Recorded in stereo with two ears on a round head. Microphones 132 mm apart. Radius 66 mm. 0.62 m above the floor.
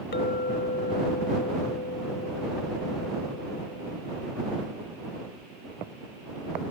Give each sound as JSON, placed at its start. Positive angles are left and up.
{"t": 0.1, "sound": "a clink", "side_deg": 70}